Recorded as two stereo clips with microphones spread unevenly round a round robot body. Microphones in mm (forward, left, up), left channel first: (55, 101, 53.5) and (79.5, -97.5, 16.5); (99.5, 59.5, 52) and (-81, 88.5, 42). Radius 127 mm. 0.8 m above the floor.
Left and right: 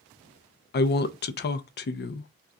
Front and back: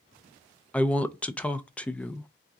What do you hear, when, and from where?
0.7 s a woman speaking: 75° left, 0.6 m